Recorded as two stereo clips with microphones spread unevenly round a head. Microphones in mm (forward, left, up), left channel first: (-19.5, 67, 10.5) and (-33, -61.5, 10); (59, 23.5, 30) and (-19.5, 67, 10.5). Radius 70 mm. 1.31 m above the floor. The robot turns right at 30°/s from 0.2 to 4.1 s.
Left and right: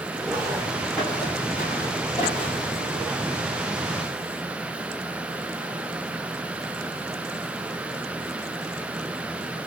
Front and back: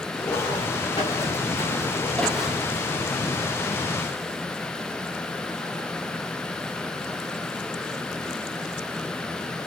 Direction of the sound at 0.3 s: 40° right.